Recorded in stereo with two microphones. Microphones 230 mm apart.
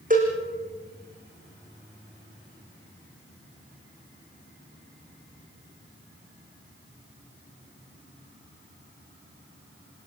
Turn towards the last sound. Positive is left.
turn(degrees=-40)  # may be behind; listen again after turning